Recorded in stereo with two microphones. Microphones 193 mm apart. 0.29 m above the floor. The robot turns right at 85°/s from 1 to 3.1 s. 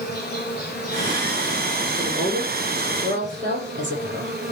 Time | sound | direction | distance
0.0 | an insect | 120° left | 7.5 m
2.0 | a woman speaking | 175° right | 9.5 m